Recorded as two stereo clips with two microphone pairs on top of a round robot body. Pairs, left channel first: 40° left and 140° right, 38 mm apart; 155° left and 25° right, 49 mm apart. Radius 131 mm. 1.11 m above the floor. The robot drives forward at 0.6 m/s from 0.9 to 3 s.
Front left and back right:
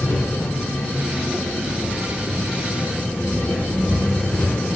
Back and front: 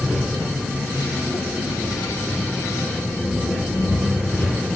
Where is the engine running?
60° left, 3.5 m; by 4.8 s 80° left, 3 m.